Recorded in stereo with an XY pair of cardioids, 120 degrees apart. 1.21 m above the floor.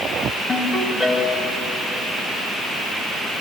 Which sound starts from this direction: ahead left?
A ringtone, at 0.5 s.